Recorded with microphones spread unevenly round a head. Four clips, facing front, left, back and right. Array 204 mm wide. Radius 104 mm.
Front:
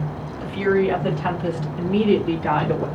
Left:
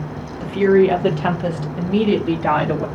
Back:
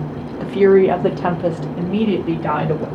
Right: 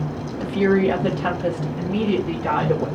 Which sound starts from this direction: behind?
A woman speaking, at 0.4 s.